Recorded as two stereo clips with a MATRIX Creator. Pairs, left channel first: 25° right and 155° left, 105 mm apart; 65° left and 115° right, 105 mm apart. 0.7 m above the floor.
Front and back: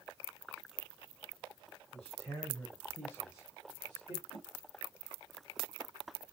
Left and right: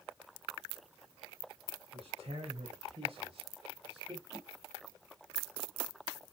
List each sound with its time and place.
1.9 s a man speaking: 95° right, 3.5 m; by 4.2 s 65° right, 2.5 m
4.3 s a whoosh: 5° left, 1.7 m